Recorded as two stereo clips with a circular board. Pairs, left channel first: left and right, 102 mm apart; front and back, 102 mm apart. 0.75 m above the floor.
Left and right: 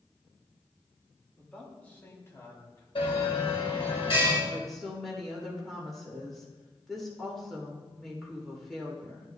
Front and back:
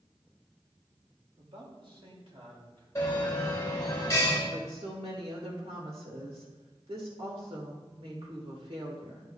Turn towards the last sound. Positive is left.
turn(degrees=180)